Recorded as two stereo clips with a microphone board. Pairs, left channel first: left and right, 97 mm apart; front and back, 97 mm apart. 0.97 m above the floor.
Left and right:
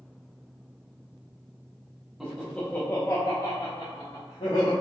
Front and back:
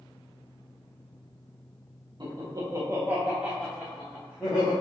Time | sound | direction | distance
2.2 | laughter | straight behind | 0.9 m